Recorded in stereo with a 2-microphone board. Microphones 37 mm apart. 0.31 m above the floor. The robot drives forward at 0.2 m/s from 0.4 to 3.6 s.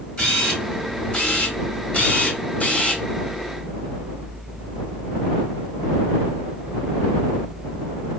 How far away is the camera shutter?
About 1.1 m.